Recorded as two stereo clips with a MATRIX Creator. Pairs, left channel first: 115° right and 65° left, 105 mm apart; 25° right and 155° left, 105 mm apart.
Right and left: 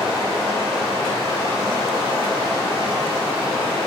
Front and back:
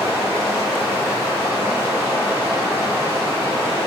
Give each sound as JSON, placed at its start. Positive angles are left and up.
{"t": 0.0, "sound": "running water", "azimuth_deg": 85, "distance_m": 1.7}